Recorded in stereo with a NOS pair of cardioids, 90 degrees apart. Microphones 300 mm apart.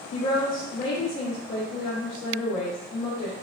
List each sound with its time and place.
0.1 s a woman speaking: 60° left, 1.2 m